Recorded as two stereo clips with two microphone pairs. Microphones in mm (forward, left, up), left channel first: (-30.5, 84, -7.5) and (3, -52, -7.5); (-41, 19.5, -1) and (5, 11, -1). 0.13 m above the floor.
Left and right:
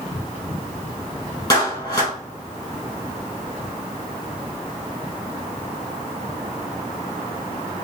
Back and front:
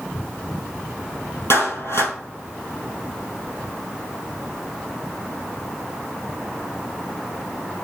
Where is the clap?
170° left, 2.5 m.